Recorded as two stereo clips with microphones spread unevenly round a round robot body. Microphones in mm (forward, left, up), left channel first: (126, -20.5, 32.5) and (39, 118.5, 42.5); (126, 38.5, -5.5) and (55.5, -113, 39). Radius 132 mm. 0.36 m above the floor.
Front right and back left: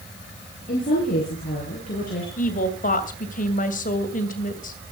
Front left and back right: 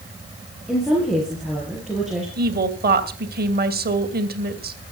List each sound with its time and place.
0.7 s a woman speaking: 25° right, 7 m
2.4 s a woman speaking: 85° right, 2.5 m